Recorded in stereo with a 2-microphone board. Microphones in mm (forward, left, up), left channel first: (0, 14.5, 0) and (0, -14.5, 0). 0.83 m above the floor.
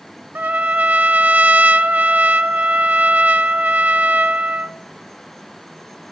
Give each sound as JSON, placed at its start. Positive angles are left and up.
{"t": 0.3, "sound": "a trumpet", "side_deg": -70, "distance_m": 1.1}